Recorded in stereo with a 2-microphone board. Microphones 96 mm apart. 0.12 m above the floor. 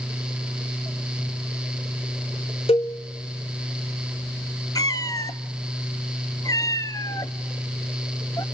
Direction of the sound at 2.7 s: 85° left.